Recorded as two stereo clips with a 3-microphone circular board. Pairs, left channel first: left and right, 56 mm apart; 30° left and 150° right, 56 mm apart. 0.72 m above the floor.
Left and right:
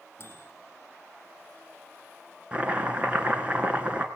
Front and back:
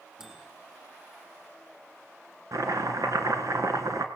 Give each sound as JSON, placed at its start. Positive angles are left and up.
{"t": 0.2, "sound": "a microwave", "azimuth_deg": 130, "distance_m": 5.5}
{"t": 2.5, "sound": "chopping", "azimuth_deg": -155, "distance_m": 3.0}